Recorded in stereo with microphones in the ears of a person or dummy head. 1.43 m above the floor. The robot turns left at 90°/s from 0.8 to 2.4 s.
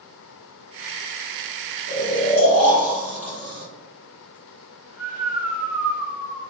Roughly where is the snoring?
Right.